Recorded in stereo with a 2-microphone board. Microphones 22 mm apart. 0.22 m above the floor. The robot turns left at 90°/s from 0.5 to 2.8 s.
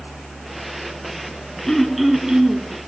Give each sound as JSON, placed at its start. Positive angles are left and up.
{"t": 1.7, "sound": "throat clearing", "azimuth_deg": 25, "distance_m": 1.8}